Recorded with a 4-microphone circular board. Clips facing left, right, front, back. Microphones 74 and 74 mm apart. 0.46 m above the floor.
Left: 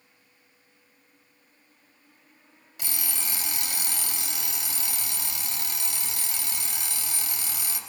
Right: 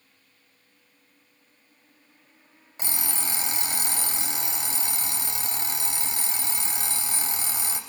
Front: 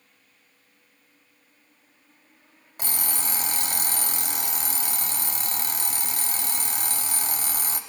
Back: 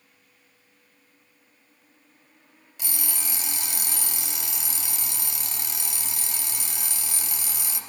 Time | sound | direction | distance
2.8 | an alarm clock | 35° right | 0.8 m